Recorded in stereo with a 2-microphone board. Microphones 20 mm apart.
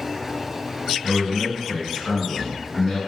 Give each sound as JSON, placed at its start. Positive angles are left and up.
{"t": 1.0, "sound": "a man speaking", "side_deg": 40, "distance_m": 2.0}